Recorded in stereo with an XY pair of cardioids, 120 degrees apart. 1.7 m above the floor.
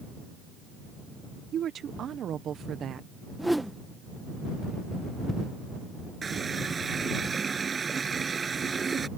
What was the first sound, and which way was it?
A woman speaking, 50° right.